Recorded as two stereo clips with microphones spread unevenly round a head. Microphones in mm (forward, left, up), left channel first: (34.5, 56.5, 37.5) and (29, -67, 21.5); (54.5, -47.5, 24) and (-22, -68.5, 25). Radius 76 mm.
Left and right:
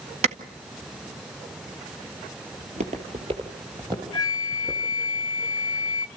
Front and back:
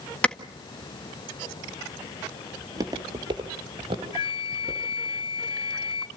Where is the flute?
35° left, 0.6 m.